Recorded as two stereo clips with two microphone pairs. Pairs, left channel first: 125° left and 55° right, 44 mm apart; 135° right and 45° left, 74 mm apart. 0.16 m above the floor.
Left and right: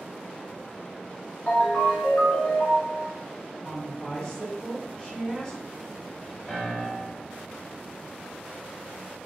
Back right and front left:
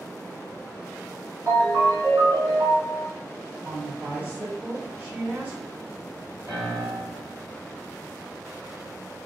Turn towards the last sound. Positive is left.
turn(degrees=50)